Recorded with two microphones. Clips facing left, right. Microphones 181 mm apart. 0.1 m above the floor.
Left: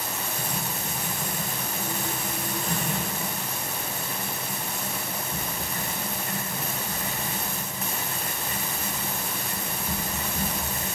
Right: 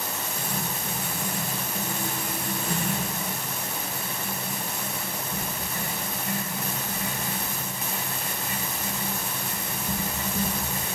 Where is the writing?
10° right (ahead or behind), 5.5 m.